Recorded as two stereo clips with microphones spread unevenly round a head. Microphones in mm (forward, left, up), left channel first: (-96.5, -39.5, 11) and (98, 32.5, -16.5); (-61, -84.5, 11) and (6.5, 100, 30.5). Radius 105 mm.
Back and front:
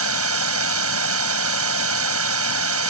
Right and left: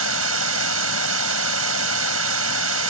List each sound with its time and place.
0.0 s running water: 45° left